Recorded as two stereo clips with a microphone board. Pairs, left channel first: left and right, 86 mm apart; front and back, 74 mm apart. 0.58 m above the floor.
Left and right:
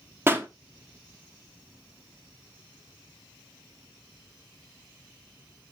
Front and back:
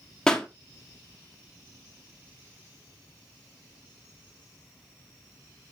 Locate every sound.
0.3 s a pop: 70° right, 1.4 m